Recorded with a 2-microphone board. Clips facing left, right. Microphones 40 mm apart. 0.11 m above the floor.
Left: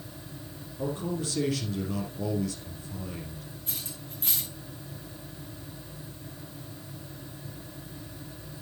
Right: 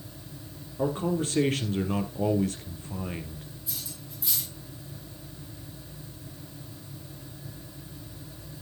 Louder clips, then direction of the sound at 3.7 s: Left 1 dB; 55° left (ahead or behind).